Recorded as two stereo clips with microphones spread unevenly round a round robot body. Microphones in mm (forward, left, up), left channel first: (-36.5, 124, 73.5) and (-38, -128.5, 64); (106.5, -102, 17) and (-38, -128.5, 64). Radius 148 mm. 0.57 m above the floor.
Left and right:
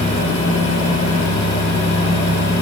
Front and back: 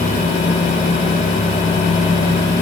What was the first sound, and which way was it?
Only background noise.